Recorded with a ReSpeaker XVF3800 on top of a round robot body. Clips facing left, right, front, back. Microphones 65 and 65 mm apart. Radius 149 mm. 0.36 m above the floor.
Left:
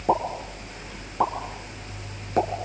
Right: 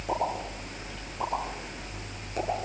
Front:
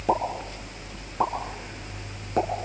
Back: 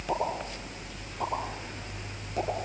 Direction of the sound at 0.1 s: 45° left.